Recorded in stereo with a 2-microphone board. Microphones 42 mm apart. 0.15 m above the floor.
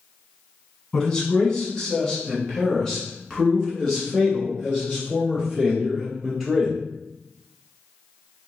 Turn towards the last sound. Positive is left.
turn(degrees=5)  # may be behind; listen again after turning